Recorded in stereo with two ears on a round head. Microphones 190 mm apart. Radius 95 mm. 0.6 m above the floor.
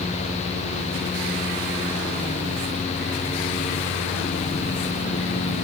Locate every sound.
Only background noise.